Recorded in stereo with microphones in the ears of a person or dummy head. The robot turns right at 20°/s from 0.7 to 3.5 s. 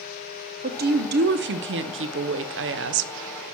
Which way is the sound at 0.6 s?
120° right.